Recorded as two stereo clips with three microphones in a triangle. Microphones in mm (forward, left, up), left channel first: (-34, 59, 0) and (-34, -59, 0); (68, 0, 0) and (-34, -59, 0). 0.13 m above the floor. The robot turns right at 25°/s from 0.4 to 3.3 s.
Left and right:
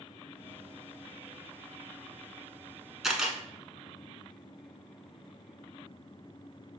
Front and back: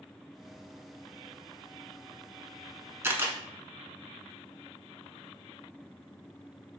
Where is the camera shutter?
170° right, 0.7 m; by 3.4 s 165° right, 0.7 m.